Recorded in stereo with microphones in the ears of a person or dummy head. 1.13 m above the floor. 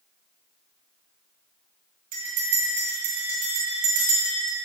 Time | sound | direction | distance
2.1 | a bell | 40° right (ahead or behind) | 2 m